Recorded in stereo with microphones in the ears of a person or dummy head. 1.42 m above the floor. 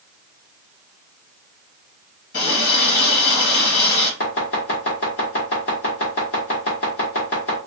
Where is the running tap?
55° left (ahead or behind), 1.6 m.